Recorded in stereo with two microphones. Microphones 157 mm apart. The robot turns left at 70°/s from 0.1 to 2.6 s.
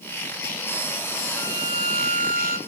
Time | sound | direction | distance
1.4 | a violin | 10° left | 6 m